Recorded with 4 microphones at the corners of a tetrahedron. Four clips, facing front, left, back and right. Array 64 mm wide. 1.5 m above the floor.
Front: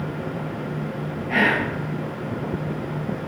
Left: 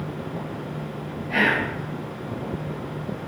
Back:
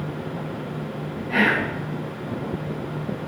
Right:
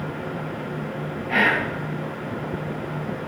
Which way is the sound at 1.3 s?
60° right.